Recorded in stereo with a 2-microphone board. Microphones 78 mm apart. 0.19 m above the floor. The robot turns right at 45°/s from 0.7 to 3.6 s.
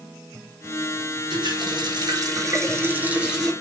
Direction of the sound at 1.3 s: 100° right.